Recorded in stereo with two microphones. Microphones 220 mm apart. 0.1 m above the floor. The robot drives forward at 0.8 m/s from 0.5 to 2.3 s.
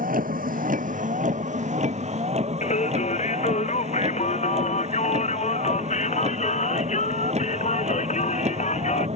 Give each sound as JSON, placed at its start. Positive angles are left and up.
{"t": 0.0, "sound": "a vehicle", "side_deg": -40}
{"t": 2.6, "sound": "singing", "side_deg": 30}